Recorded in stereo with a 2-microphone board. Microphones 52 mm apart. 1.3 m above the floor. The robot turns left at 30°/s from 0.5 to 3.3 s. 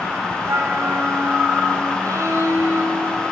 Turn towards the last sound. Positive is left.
turn(degrees=-135)